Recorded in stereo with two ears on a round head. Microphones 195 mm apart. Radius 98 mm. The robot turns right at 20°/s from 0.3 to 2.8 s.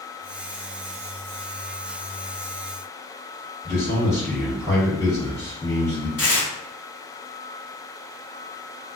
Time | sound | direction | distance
3.6 | a man speaking | 15° left (ahead or behind) | 1.2 m
6.2 | tearing paper | 50° left (ahead or behind) | 1.9 m